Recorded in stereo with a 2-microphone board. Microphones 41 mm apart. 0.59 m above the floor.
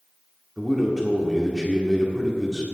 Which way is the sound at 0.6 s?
Centre (ahead or behind).